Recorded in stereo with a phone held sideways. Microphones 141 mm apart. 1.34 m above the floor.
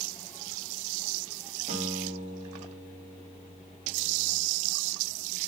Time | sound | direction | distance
1.7 | a guitar | 55° right (ahead or behind) | 4.5 m